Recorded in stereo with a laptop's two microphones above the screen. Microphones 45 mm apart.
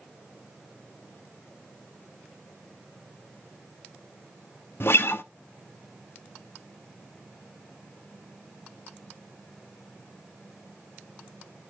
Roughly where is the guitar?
Left.